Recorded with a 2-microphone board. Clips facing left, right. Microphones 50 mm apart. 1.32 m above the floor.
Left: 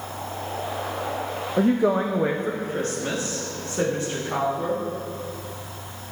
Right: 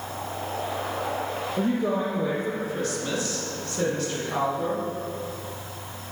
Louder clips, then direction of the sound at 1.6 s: Left 6 dB; 65° left (ahead or behind).